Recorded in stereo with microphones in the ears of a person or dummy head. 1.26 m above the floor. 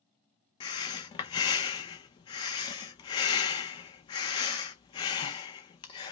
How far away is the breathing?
About 0.6 m.